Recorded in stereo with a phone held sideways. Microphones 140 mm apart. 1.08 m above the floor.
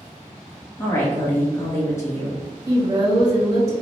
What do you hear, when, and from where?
0.8 s a woman speaking: 20° left (ahead or behind), 1.2 m
2.7 s a woman speaking: 25° right (ahead or behind), 1.7 m